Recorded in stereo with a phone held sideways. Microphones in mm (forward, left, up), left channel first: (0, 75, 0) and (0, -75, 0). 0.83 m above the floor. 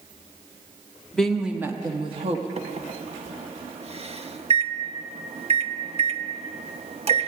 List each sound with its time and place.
1.1 s a woman speaking: 5° left (ahead or behind), 1.4 m; by 2.5 s 50° right (ahead or behind), 1.4 m
2.6 s a microwave: 45° right (ahead or behind), 0.7 m